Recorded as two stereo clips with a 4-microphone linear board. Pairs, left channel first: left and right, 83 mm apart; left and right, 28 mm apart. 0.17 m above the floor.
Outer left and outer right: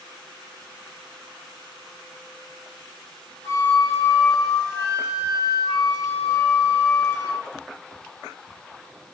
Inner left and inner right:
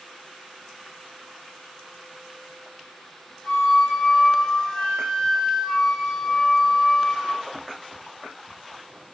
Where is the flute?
35° left (ahead or behind), 0.9 m.